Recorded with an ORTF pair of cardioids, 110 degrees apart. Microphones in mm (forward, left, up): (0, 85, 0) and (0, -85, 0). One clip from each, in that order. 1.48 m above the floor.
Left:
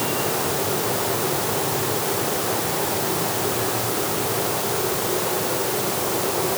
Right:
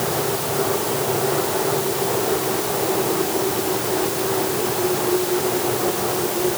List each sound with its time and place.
Only background noise.